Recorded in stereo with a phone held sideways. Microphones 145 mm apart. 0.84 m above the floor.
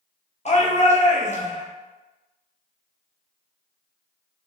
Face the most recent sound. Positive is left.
turn(degrees=50)  # may be behind; listen again after turning